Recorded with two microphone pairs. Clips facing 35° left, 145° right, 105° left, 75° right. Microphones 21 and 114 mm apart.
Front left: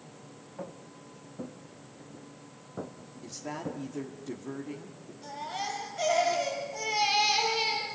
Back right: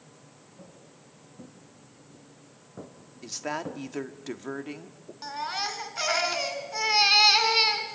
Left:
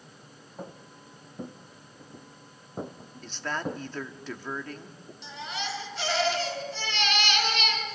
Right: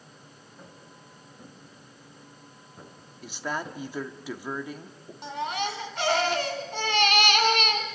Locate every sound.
0.6 s footsteps: 75° left, 2.5 m; by 3.8 s 150° left, 1.3 m
3.2 s a woman speaking: 150° right, 1.5 m
5.2 s a baby crying: 110° right, 2.5 m